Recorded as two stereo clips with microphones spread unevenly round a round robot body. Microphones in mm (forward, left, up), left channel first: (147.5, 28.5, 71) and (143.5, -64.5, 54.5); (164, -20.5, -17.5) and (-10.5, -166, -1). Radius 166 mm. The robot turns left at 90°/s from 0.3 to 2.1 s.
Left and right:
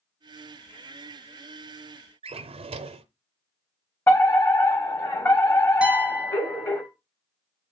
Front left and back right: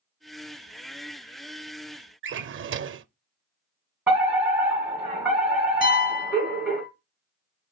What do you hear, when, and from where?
2.2 s a drawer: 95° right, 0.5 m
4.1 s a fire alarm: 135° left, 2.5 m
5.8 s a piano: 15° right, 2.5 m